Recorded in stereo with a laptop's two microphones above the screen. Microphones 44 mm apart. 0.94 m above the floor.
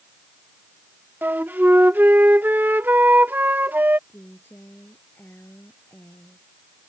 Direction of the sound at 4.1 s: 50° left (ahead or behind).